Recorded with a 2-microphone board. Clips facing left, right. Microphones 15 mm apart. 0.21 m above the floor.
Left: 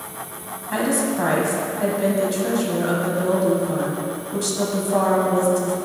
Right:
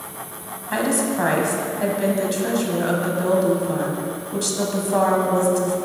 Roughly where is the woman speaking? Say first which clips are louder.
Even; centre.